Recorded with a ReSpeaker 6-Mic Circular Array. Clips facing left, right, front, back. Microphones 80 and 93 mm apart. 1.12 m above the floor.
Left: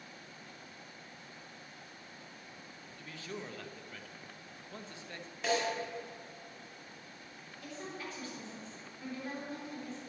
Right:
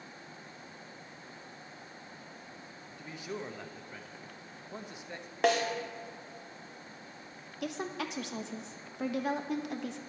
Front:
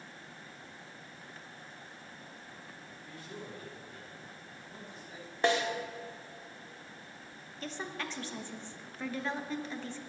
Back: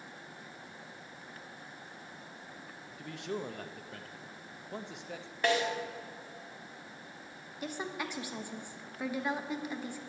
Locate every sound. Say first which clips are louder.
3.0 s a man speaking: right 4 dB, back 9 dB; 165° right, 0.9 m
5.4 s a snare drum: right 5 dB, front 1 dB; 65° right, 1.5 m
7.6 s a woman speaking: right 8 dB, back 2 dB; 105° right, 1.0 m